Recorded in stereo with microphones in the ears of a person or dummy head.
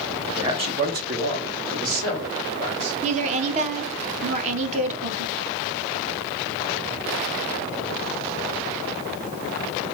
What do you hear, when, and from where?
0.4 s a man speaking: 20° right (ahead or behind), 0.7 m; by 2.9 s 65° right (ahead or behind), 2 m
3.0 s a woman speaking: 35° right (ahead or behind), 0.8 m